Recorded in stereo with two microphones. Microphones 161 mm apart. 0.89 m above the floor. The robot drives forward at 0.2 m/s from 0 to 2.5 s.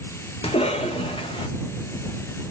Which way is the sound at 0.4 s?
35° left (ahead or behind).